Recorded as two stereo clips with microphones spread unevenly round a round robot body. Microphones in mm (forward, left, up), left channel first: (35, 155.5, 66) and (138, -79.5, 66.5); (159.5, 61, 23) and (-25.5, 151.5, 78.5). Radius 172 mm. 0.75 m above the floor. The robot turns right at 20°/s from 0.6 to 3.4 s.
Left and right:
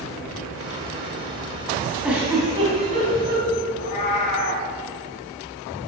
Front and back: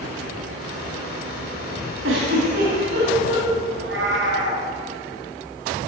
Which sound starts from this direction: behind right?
A giggle, at 2.0 s.